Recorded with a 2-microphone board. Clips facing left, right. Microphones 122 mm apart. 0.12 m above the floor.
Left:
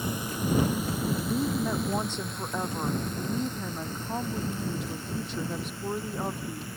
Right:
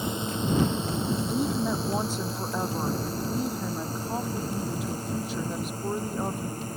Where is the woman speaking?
5° right (ahead or behind).